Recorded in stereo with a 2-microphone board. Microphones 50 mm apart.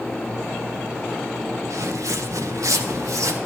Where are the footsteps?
80° right, 1.3 m.